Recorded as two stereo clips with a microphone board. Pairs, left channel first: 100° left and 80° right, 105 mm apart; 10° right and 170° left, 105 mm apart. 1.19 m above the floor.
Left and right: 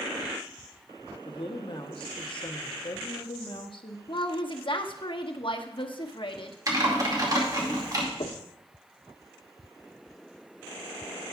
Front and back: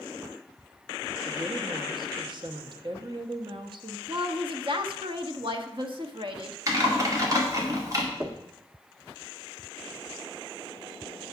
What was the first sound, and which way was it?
A woman speaking, 130° left.